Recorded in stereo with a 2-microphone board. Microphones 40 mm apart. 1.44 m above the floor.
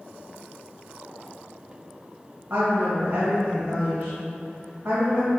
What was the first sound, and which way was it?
A woman speaking, 55° right (ahead or behind).